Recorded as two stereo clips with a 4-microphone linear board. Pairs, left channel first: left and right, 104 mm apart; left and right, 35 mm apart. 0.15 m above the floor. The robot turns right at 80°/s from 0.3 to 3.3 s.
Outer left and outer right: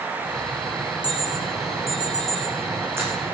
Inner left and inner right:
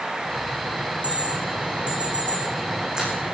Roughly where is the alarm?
Left.